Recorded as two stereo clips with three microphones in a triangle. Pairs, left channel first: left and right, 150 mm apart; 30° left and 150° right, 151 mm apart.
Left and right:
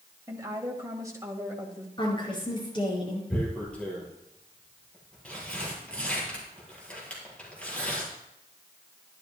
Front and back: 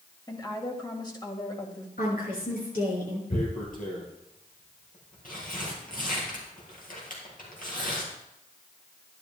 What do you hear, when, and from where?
0.3 s a woman speaking: 25° right, 2 m
2.0 s a woman speaking: 35° left, 6 m
3.3 s tearing paper: 10° left, 3.5 m